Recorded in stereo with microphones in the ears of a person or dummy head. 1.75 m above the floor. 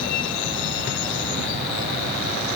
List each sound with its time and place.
Only background noise.